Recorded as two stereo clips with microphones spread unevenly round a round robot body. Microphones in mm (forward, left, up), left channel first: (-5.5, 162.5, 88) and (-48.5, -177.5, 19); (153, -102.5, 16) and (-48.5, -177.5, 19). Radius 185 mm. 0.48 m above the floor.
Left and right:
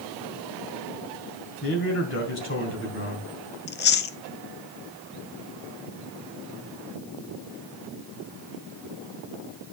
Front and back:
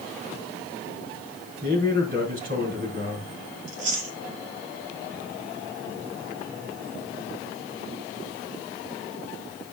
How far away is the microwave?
I don't hear a microwave.